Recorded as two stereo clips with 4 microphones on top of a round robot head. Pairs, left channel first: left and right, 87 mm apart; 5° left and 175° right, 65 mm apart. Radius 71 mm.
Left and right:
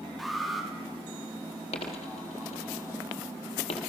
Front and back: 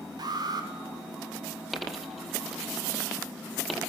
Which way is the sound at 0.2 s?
Straight behind.